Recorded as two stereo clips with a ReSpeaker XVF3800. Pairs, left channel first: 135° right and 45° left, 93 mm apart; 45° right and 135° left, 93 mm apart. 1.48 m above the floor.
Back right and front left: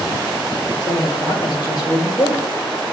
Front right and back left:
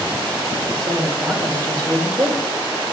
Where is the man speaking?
175° right, 6.5 m; by 2.5 s 175° left, 6 m.